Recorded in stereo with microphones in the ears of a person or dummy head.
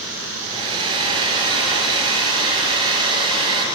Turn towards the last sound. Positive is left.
turn(degrees=-30)  # may be behind; listen again after turning